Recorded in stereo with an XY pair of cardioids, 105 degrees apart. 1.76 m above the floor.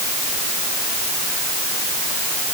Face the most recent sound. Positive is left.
No sound to turn to.